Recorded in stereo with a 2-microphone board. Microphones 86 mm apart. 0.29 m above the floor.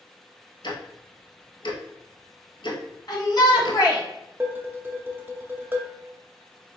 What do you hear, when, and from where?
0.6 s ticking: 65° left (ahead or behind), 0.9 m
3.1 s a shout: 50° left (ahead or behind), 2 m
4.4 s dishes clattering: 25° right (ahead or behind), 0.7 m